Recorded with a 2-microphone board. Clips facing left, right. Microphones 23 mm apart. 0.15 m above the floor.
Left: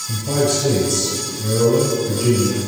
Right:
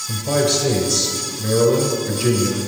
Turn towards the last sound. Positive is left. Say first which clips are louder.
# right 1 dB
turn(degrees=-35)  # may be behind; listen again after turning